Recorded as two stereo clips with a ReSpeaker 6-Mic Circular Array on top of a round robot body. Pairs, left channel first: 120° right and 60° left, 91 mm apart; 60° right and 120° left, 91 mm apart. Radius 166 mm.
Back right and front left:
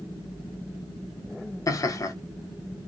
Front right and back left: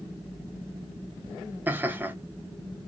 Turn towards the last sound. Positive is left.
turn(degrees=-170)